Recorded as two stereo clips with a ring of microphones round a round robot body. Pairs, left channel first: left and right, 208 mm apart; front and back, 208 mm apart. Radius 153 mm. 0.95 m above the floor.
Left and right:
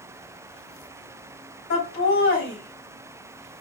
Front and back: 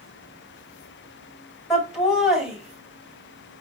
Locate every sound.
1.7 s laughter: 90° left, 2 m